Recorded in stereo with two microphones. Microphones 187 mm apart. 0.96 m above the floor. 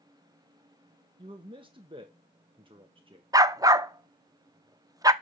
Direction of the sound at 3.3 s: 20° right (ahead or behind).